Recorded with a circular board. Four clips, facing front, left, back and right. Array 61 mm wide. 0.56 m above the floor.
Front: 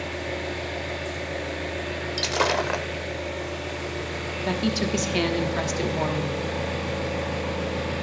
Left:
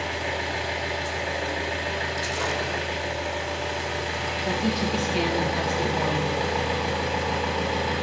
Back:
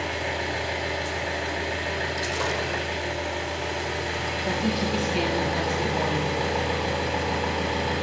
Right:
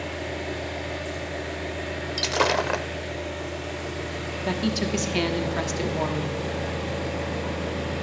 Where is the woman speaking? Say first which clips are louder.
Right 1 dB, front 2 dB; 35° right, 1.0 m.